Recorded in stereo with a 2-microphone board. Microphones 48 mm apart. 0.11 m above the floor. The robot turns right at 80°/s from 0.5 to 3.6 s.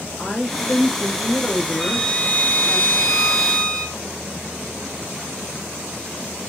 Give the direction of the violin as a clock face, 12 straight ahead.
12 o'clock.